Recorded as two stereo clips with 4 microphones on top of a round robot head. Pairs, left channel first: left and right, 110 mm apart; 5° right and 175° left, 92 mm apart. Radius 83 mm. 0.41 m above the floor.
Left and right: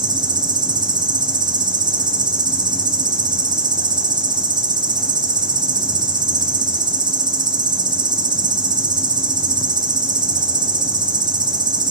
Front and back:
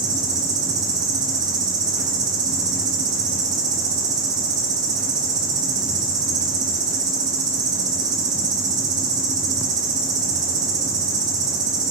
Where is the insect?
135° right, 3.5 m.